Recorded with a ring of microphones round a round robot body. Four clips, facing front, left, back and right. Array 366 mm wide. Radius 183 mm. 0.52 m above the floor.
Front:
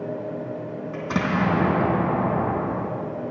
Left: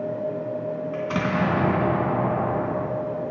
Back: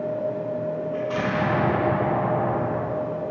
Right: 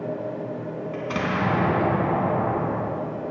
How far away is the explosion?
About 2 m.